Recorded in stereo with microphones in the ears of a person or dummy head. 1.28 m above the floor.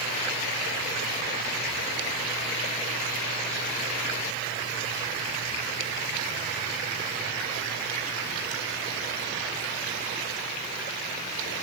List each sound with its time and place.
Only background noise.